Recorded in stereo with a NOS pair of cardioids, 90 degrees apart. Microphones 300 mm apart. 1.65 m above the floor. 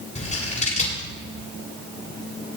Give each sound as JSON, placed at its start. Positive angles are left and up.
{"t": 0.1, "sound": "scissors", "azimuth_deg": 25, "distance_m": 8.0}